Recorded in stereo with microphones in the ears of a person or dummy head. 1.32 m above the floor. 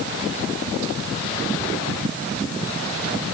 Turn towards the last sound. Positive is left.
No sound to turn to.